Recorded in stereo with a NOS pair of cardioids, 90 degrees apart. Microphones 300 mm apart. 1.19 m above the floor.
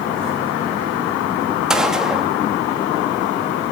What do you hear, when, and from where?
1.7 s a gunshot: straight ahead, 2.5 m